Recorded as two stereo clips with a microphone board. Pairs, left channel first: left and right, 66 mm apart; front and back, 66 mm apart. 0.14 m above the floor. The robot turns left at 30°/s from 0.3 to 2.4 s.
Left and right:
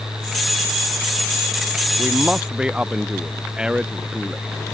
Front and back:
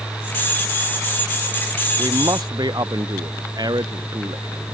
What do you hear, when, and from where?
2.0 s a man speaking: 155° right; by 4.6 s 170° right